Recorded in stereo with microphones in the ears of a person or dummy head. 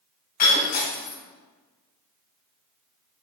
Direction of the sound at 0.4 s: 45° left (ahead or behind).